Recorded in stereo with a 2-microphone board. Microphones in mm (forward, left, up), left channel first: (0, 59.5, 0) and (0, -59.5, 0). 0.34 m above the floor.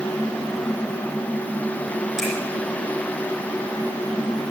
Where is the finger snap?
5° right (ahead or behind), 9.5 m.